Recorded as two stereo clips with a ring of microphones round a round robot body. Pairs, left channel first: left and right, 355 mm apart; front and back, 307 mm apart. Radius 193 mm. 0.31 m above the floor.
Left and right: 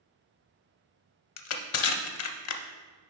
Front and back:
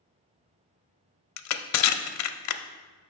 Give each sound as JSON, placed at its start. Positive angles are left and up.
{"t": 1.4, "sound": "crushing", "azimuth_deg": 40, "distance_m": 0.5}